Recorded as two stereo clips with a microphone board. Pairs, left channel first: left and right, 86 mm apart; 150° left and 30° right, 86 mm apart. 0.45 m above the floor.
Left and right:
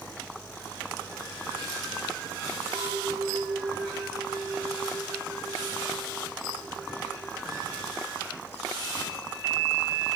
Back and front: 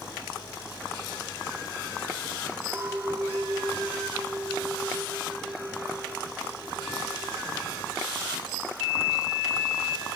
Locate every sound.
2.7 s a clink: 95° right, 2.5 m